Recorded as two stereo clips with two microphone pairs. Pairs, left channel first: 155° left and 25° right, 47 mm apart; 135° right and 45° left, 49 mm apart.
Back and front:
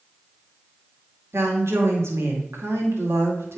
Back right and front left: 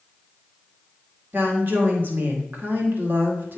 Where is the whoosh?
I don't hear a whoosh.